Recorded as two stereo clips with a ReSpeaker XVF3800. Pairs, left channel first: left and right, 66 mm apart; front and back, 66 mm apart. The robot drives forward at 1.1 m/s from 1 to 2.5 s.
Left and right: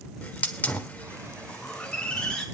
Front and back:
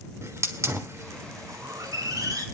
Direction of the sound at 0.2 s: 150° left.